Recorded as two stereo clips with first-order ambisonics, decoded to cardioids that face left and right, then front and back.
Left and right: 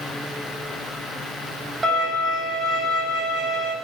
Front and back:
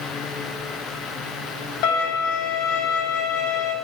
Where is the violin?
20° right, 5.5 m.